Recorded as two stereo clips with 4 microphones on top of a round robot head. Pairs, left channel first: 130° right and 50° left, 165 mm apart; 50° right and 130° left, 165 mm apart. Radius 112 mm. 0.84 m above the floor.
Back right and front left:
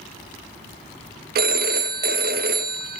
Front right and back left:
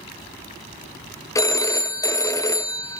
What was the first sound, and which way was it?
A phone ringing, 20° left.